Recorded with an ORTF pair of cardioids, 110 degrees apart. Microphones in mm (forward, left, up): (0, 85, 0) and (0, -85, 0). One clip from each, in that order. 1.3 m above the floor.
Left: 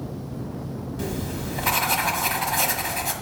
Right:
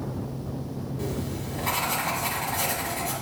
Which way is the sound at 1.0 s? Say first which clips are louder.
Left 2 dB; 50° left.